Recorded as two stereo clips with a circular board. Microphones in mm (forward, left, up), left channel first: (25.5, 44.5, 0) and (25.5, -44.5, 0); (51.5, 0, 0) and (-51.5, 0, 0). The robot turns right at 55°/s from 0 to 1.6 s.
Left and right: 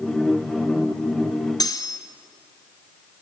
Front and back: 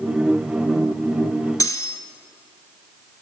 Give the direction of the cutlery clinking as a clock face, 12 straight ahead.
10 o'clock.